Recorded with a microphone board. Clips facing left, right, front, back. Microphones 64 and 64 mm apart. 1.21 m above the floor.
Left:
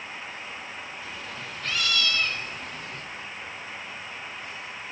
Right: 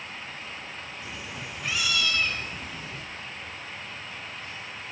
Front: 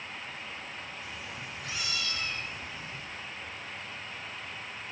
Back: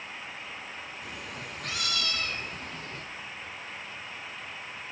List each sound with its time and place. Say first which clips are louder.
1.0 s a cat meowing: left 1 dB, back 1 dB; 165° right, 3 m; by 3.0 s 175° right, 4 m